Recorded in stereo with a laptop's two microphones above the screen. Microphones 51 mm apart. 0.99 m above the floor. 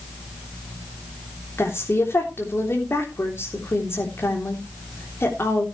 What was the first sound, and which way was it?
A woman speaking, 50° left (ahead or behind).